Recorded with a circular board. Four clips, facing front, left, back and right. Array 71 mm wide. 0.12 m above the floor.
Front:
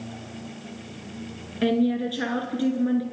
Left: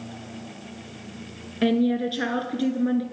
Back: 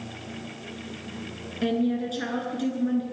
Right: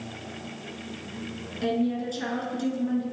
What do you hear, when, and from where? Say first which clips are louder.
1.6 s a woman speaking: left 5 dB, front 3 dB; 70° left, 1.5 m